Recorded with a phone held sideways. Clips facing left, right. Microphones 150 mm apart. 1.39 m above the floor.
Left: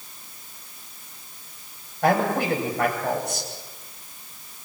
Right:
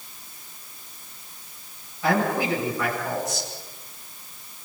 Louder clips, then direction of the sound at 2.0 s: Left 2 dB; 60° left (ahead or behind).